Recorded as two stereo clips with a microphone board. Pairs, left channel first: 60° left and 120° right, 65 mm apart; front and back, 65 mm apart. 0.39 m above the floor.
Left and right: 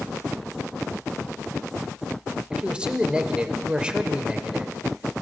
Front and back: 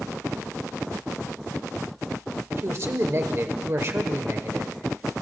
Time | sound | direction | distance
2.5 | a man speaking | 170° left | 1.0 m